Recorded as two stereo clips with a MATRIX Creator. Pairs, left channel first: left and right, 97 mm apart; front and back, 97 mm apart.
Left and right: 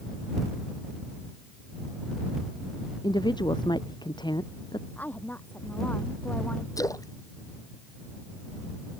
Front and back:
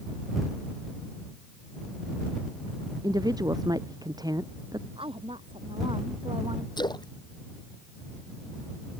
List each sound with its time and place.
3.0 s a woman speaking: 130° left
5.0 s a woman speaking: 160° left
6.8 s a splash: 40° left